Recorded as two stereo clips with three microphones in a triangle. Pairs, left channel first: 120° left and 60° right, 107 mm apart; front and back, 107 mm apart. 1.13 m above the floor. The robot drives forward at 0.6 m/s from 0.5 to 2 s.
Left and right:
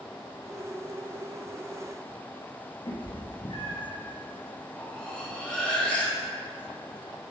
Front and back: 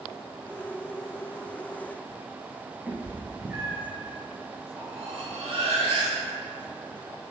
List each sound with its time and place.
2.9 s a cat meowing: 120° left, 1.6 m
4.8 s cutlery clinking: 160° right, 1.9 m